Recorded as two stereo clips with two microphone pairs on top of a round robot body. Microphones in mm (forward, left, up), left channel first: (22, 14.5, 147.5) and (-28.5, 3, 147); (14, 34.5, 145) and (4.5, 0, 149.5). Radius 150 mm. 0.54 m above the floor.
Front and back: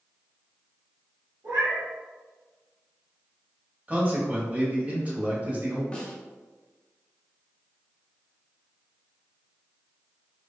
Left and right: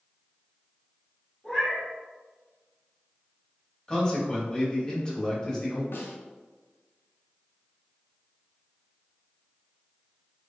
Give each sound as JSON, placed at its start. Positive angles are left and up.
{"t": 1.4, "sound": "a cat meowing", "azimuth_deg": 160, "distance_m": 1.2}
{"t": 3.9, "sound": "a man speaking", "azimuth_deg": 135, "distance_m": 1.5}
{"t": 5.9, "sound": "a snare drum", "azimuth_deg": 85, "distance_m": 0.7}